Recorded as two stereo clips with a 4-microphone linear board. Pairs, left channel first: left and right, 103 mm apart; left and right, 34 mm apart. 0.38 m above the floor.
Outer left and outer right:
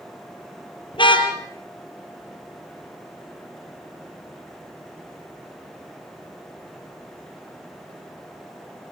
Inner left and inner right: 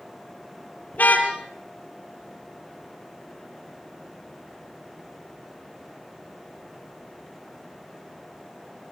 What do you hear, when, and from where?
0.9 s a car horn: 50° left (ahead or behind), 3.5 m